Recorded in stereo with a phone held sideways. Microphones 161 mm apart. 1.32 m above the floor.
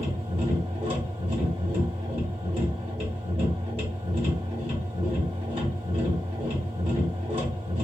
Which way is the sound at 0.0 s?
40° right (ahead or behind).